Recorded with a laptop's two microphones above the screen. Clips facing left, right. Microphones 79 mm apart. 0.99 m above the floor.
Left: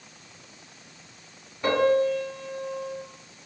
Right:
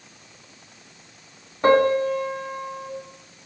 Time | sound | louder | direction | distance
1.6 | a piano | right 4 dB | 40° right (ahead or behind) | 1.2 m